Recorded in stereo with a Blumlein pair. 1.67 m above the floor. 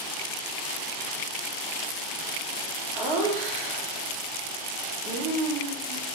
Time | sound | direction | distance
3.0 | laughter | 30° right | 1.4 m